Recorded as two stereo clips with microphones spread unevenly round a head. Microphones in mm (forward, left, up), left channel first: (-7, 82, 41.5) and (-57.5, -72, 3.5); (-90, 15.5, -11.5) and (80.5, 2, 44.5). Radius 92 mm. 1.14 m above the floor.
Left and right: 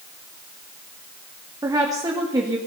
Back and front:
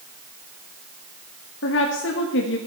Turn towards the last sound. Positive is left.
turn(degrees=-175)